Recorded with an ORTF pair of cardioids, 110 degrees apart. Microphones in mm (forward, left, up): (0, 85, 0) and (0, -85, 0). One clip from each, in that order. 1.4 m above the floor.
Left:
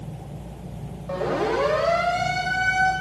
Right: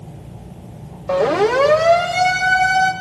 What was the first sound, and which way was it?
A siren, 60° right.